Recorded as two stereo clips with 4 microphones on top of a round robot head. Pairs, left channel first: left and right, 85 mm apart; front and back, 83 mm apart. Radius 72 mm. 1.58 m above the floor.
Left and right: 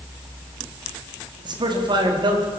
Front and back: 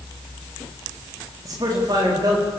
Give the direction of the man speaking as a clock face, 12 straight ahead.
4 o'clock.